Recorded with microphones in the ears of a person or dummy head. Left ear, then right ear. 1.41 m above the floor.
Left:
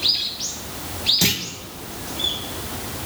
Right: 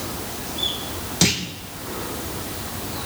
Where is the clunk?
5° left (ahead or behind), 0.8 m.